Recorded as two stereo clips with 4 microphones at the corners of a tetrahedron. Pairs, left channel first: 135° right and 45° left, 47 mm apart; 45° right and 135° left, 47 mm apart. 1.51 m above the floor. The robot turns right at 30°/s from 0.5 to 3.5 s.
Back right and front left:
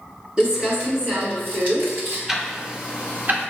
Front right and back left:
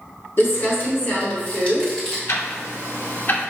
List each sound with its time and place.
0.4 s crumpling: 20° right, 1.7 m; by 2.2 s 30° left, 1.7 m
2.3 s ticking: 35° right, 0.7 m; by 3.5 s 5° left, 0.7 m